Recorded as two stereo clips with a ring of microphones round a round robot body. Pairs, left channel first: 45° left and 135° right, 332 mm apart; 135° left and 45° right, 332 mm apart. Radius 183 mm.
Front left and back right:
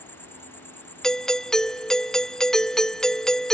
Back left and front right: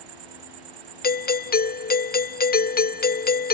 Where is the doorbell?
130° left.